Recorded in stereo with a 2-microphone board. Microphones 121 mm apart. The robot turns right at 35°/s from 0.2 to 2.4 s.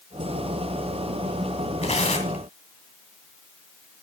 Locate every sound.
1.8 s tearing paper: 60° left (ahead or behind), 2 m; by 2.5 s 80° left, 2 m